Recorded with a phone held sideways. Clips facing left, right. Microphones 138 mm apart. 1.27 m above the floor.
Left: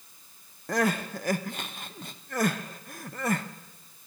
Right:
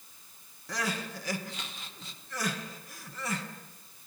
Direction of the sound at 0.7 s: 55° left (ahead or behind).